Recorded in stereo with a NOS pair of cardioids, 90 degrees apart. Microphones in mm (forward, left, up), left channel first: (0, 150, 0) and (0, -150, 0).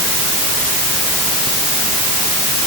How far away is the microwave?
I don't hear a microwave.